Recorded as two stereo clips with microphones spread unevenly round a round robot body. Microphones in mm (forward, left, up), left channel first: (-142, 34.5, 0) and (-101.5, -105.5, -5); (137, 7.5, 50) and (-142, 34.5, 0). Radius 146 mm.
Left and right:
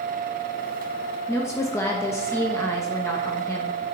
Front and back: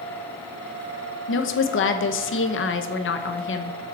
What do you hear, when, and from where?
1.3 s a woman speaking: 35° left, 1.0 m